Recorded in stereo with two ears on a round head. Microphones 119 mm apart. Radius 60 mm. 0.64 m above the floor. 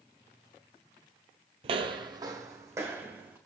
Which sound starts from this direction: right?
Footsteps, at 1.6 s.